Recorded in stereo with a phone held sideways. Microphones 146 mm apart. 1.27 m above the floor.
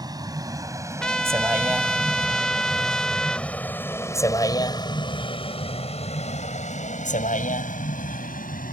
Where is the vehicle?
25° right (ahead or behind); by 8.7 s 75° left (ahead or behind).